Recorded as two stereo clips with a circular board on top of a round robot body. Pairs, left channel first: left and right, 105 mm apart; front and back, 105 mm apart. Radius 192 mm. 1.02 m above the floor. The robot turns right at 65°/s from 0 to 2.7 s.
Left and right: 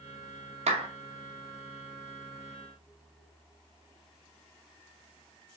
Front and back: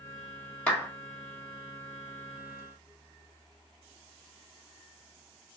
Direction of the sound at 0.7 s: 80° right.